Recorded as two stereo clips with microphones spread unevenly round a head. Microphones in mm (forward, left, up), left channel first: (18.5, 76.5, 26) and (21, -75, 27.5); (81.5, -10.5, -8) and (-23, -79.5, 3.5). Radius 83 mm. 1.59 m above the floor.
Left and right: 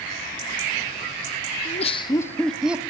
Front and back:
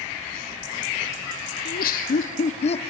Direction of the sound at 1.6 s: 50° left.